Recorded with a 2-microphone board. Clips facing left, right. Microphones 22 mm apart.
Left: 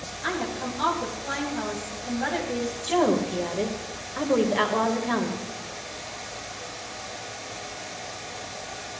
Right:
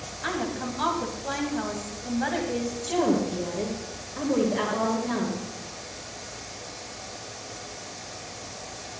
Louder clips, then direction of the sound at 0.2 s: Left 1 dB; 10° right (ahead or behind).